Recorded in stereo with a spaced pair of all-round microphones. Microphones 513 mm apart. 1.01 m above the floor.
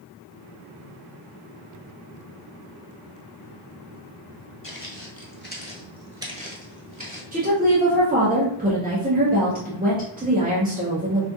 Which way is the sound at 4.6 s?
40° left (ahead or behind).